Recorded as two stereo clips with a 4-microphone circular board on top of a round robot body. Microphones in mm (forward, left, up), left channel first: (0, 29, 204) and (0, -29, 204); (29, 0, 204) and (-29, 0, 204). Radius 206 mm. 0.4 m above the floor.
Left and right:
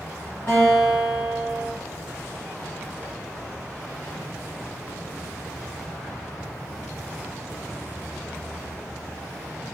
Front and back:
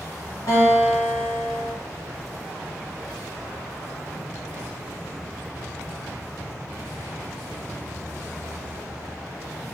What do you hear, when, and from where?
0.5 s a guitar: 35° left, 0.7 m